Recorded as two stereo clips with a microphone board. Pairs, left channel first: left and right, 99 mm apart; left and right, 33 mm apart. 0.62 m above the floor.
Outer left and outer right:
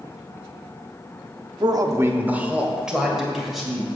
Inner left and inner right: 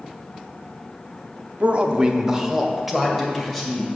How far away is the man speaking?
About 0.8 m.